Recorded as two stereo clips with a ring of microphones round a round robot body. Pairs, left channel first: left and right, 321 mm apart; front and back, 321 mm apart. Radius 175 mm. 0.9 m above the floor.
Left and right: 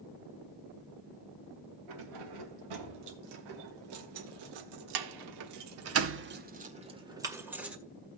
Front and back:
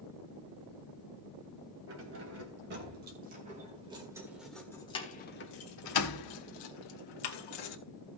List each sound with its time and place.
1.9 s keys jangling: 125° right, 3 m; by 7.8 s 5° right, 2 m